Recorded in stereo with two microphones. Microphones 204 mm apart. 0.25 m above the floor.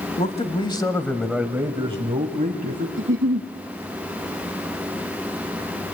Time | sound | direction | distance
0.2 | a man speaking | 35° left (ahead or behind) | 1.4 m
3.0 | a giggle | 80° right | 1.1 m